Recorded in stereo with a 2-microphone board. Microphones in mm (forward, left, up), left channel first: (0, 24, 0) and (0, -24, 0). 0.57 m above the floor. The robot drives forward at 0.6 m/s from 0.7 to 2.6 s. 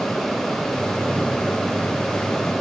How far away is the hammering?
I don't hear hammering.